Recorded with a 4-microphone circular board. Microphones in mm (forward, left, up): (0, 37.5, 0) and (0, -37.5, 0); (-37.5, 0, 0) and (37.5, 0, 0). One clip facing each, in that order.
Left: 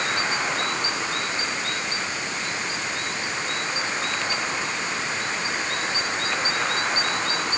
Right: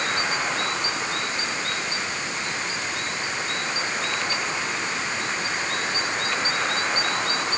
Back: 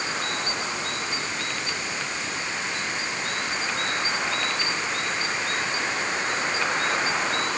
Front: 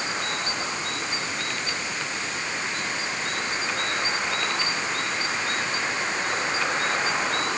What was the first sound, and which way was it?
Only background noise.